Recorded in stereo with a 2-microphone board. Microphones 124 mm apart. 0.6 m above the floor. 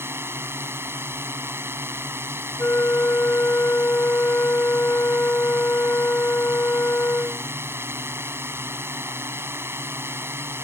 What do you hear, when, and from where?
0.0 s a drone: 20° right (ahead or behind)
2.6 s a flute: 20° left (ahead or behind)